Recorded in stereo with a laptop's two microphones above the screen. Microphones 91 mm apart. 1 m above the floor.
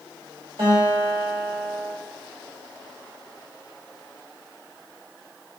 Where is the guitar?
75° right (ahead or behind), 1.8 m.